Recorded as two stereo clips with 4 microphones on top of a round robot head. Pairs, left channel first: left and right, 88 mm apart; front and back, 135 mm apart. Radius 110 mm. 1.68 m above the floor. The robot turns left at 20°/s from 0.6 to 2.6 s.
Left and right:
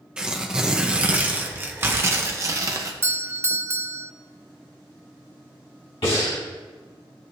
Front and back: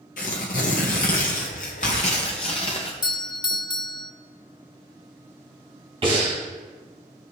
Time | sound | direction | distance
0.2 | tearing paper | 15° right | 0.8 m
3.0 | a doorbell | 40° right | 0.5 m
6.0 | breathing | 135° left | 4 m